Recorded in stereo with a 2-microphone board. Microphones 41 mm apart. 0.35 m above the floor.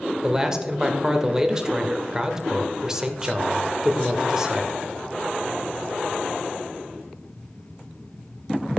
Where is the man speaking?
15° right (ahead or behind), 1.1 m.